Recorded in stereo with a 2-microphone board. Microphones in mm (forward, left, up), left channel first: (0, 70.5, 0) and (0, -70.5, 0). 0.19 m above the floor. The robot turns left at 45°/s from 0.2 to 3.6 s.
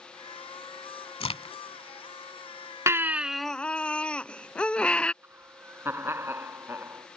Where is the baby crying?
155° right; by 5.1 s 170° left.